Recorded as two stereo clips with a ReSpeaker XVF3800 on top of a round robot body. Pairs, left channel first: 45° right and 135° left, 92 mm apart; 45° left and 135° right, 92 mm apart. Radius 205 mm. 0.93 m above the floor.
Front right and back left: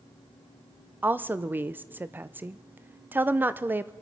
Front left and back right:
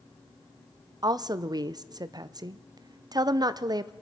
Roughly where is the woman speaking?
Behind.